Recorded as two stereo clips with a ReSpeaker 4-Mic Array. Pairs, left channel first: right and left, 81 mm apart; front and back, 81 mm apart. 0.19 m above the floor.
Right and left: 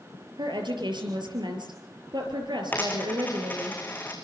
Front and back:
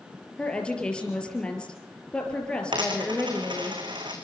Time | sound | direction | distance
0.4 | a woman speaking | 80° left | 4.5 m
2.7 | a dropped coin | 160° right | 3.5 m